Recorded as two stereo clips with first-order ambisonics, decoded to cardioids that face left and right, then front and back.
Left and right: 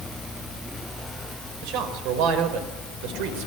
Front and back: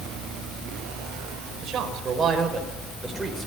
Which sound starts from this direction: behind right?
A man speaking, at 1.6 s.